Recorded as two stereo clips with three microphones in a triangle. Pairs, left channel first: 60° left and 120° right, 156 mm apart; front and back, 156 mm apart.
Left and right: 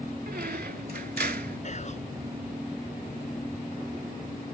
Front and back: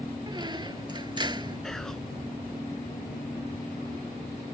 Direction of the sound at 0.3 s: 125° right.